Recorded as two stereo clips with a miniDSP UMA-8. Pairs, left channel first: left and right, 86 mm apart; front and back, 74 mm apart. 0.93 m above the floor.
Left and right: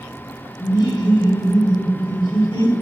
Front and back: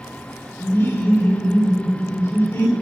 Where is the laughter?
60° left, 1.9 m.